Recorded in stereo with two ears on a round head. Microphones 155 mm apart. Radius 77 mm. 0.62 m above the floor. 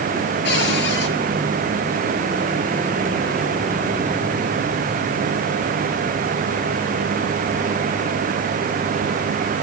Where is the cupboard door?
70° left (ahead or behind), 7 m.